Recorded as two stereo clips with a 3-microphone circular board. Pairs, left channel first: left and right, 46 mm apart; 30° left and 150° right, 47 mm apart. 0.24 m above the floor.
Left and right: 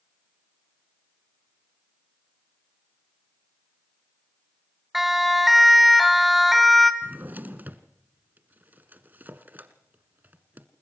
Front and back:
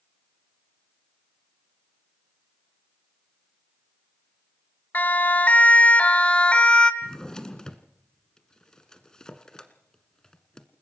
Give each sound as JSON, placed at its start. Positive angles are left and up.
{"t": 4.9, "sound": "a siren", "azimuth_deg": -5, "distance_m": 2.5}
{"t": 7.0, "sound": "a drawer", "azimuth_deg": -45, "distance_m": 1.6}